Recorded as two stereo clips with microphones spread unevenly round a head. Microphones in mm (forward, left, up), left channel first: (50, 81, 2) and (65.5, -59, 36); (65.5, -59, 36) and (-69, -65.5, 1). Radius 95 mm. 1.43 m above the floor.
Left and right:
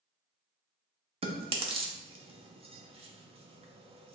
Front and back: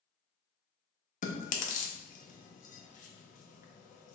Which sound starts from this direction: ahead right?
Chewing, at 1.2 s.